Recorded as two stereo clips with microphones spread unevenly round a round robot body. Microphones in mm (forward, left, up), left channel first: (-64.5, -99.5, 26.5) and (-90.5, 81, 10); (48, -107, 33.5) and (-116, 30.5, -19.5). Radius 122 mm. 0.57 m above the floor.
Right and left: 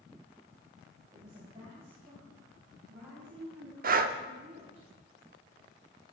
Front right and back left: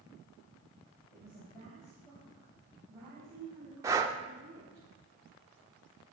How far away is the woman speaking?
About 3.5 m.